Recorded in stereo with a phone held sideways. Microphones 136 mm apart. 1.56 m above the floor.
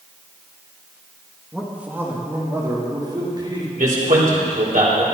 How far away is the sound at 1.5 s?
About 2 m.